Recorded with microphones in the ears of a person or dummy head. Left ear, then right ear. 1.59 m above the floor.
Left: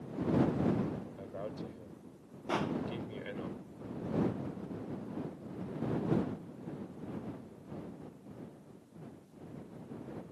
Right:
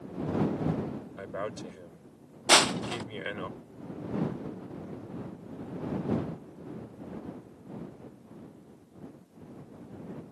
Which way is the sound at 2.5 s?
60° right (ahead or behind).